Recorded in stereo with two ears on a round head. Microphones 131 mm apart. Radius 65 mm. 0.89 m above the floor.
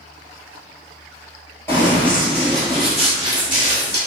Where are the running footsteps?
15° left (ahead or behind), 0.9 m; by 4.0 s 5° right (ahead or behind), 1.8 m.